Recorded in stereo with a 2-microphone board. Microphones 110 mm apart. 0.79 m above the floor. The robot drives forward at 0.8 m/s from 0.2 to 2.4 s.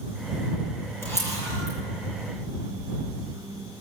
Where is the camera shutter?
25° left (ahead or behind), 9.5 m.